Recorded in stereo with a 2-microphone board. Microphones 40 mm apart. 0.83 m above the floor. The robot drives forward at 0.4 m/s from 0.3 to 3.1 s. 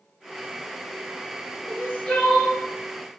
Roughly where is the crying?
Left.